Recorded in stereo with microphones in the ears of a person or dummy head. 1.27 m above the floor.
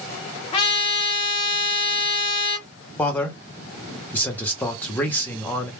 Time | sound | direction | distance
0.5 | a trumpet | 25° left (ahead or behind) | 0.5 m
3.0 | a man speaking | 10° left (ahead or behind) | 0.7 m